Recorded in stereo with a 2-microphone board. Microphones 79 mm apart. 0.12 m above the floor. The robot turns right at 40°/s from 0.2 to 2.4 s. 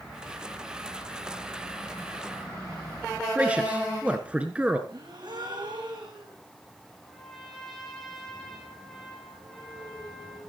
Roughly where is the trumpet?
Centre.